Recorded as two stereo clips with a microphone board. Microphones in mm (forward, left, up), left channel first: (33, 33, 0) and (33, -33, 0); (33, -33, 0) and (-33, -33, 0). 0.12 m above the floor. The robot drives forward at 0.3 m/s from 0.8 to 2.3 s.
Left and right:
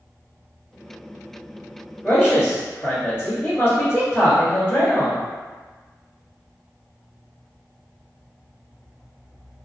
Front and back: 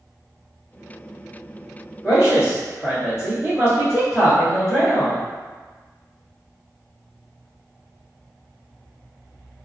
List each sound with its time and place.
2.0 s a man speaking: 110° left, 1.5 m; by 5.2 s 115° left, 1.5 m